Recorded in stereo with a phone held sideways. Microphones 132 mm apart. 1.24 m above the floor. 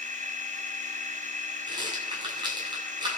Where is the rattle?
35° right (ahead or behind), 10 m.